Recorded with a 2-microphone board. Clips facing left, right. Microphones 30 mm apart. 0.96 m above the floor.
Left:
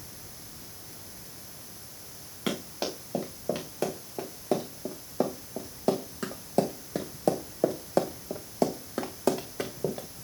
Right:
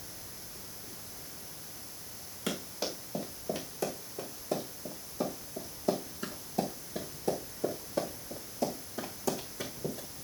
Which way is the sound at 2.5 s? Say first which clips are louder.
Left 4 dB; 30° left (ahead or behind).